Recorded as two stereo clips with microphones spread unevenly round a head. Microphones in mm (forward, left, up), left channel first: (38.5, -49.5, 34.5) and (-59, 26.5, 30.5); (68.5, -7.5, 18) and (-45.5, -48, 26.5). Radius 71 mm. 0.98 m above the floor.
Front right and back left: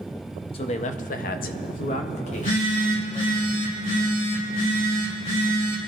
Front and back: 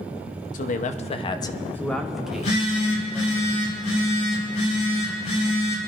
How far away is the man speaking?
About 0.9 m.